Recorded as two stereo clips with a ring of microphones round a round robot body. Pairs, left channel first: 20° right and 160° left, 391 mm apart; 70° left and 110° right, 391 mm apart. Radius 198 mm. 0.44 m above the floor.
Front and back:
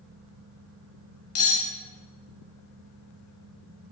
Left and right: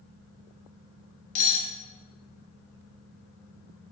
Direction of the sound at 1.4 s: 25° left.